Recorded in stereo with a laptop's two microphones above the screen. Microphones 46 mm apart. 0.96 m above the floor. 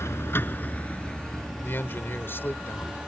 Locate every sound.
0.0 s a vehicle: 70° left (ahead or behind); by 3.1 s 15° right (ahead or behind)
1.6 s a man speaking: 50° left (ahead or behind)